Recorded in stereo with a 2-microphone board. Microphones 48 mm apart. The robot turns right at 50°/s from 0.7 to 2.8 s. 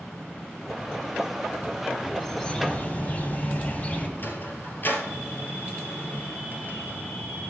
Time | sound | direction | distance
2.2 | a bird | 10° left | 1.6 m
4.2 | a sliding door | 45° left (ahead or behind) | 2 m